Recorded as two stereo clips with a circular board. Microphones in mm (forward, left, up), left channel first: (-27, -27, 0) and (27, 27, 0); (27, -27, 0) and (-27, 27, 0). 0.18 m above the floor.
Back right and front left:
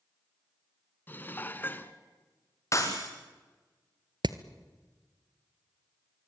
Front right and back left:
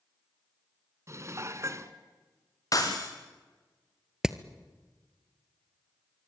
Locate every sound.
1.1 s dishes clattering: 170° left, 1.2 m
2.7 s breaking glass: 85° right, 4 m
4.2 s hammering: 55° left, 0.9 m